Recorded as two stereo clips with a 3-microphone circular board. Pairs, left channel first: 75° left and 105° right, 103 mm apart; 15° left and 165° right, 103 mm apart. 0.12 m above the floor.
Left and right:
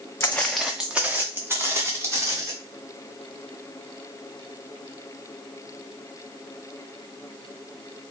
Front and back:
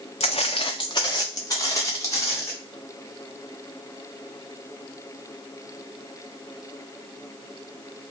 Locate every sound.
0.2 s footsteps: 10° left, 0.6 m; by 2.5 s 45° right, 2.5 m